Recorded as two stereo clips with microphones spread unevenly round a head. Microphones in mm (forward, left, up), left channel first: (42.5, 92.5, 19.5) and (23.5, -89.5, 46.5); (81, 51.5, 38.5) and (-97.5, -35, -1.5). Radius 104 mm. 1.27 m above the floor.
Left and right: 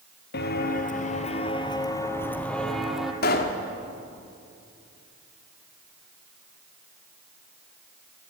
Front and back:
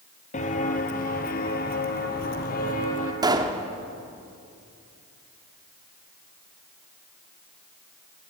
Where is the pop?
130° left, 1.8 m.